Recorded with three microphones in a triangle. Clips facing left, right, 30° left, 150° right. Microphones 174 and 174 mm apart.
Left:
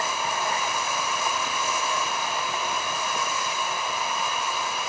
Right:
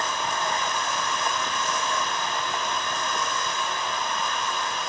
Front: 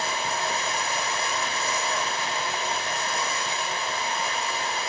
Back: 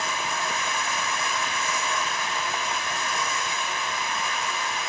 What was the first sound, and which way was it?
Running water, 15° left.